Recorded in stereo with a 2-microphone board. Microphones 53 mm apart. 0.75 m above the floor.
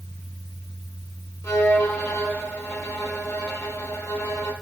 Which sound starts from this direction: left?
A violin, at 1.4 s.